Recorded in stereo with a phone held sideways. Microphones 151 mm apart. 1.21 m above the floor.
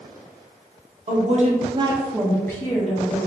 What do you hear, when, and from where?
1.1 s a woman speaking: 55° right (ahead or behind), 0.9 m; by 3.3 s 45° left (ahead or behind), 1.0 m